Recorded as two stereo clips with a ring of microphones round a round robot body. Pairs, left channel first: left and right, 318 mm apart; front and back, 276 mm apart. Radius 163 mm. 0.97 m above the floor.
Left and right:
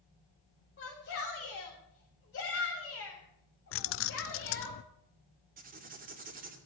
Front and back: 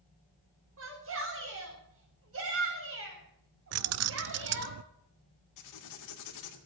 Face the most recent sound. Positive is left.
turn(degrees=-25)